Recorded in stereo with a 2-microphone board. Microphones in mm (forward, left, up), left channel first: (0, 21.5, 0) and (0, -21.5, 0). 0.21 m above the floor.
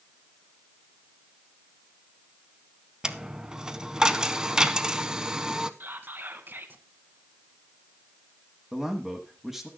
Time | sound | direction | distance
3.0 | a dropped coin | 15° right (ahead or behind) | 0.6 m
5.8 | whispering | 50° right (ahead or behind) | 1.8 m
8.7 | a man speaking | 5° right (ahead or behind) | 1.2 m